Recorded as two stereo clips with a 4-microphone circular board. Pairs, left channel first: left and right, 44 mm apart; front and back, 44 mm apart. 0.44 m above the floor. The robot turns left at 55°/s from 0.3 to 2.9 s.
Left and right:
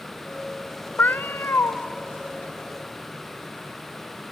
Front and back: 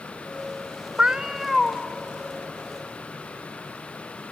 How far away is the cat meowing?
About 0.6 m.